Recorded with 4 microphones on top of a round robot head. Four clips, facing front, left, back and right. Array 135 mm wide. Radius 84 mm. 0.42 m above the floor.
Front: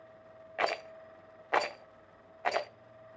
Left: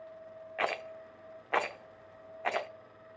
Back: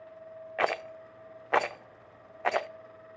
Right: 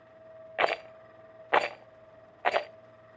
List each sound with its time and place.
0.6 s a rattle: 125° right, 0.7 m